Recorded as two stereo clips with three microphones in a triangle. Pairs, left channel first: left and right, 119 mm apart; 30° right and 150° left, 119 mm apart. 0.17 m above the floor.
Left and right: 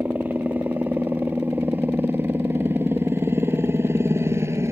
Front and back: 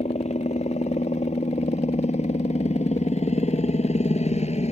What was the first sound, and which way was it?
A helicopter, 15° right.